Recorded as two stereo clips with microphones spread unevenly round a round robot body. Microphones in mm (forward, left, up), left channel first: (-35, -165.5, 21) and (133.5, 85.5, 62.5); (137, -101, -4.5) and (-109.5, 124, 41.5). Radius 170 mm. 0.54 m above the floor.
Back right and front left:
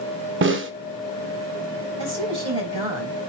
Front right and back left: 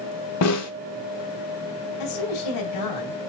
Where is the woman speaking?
20° right, 4 m.